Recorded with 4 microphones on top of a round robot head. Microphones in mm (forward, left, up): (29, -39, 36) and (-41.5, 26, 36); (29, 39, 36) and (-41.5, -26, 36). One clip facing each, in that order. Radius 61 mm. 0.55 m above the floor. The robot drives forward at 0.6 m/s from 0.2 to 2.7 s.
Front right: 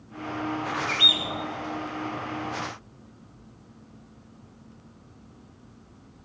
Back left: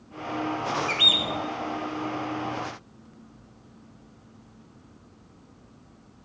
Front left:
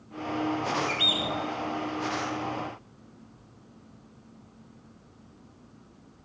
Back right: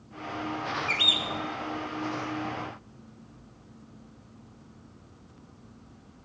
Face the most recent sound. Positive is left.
turn(degrees=180)